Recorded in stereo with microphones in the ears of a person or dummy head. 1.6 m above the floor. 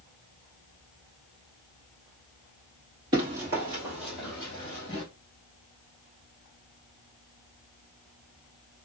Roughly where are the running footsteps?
Right.